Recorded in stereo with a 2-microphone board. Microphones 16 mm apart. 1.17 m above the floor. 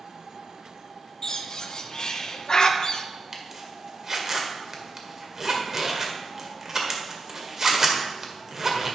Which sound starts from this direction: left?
A bird, at 1.2 s.